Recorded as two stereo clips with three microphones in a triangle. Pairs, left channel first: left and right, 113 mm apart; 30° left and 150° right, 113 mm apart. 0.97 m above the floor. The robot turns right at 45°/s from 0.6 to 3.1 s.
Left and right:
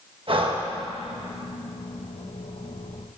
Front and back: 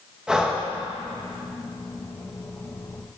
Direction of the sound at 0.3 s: 70° right.